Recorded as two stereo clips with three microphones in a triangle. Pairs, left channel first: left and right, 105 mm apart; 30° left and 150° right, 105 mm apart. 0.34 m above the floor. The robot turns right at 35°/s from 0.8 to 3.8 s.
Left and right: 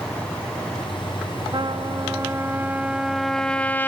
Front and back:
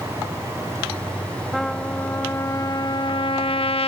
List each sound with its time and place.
1.5 s a trumpet: 60° right, 0.6 m; by 3.9 s 20° left, 0.6 m